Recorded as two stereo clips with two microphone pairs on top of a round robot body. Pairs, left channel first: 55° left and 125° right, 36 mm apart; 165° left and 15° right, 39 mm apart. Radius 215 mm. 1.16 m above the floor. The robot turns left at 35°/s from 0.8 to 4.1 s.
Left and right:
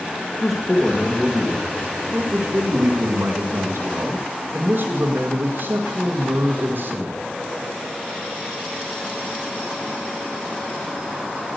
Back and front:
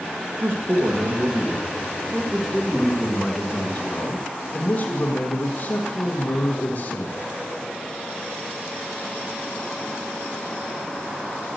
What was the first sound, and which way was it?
A man speaking, 25° right.